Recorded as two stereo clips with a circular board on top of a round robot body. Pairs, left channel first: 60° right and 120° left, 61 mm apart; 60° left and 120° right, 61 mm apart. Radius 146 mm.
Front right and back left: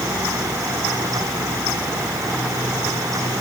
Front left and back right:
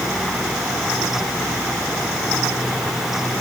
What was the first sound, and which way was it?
Only background noise.